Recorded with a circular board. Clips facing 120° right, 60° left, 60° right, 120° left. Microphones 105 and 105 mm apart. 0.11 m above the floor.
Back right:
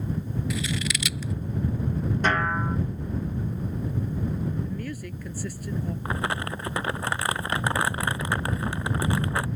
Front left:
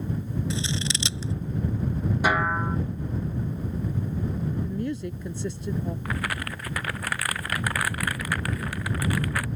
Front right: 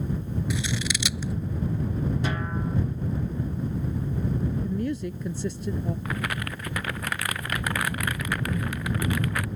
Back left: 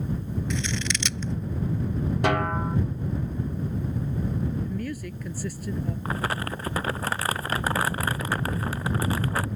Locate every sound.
0.5 s scissors: 15° left
2.2 s a snare drum: 140° left
4.6 s a woman speaking: straight ahead
6.0 s crumpling: 175° left